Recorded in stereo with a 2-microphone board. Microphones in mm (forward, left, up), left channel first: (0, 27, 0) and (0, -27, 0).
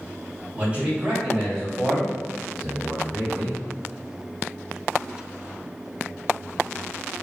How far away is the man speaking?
About 1.8 m.